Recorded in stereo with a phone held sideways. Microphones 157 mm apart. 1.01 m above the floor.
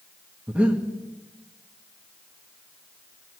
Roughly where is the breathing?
Centre.